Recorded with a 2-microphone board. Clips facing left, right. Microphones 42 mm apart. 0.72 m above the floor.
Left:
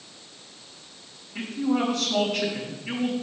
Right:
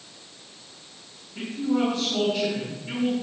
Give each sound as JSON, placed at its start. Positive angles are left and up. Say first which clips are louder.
{"t": 1.4, "sound": "a man speaking", "louder": "even", "side_deg": 65, "distance_m": 3.5}